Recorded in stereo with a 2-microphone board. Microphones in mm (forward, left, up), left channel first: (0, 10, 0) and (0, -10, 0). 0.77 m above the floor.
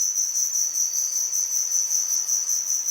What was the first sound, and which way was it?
An insect, 30° right (ahead or behind).